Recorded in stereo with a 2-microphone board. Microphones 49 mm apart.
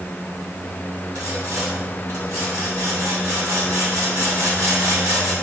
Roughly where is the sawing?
Right.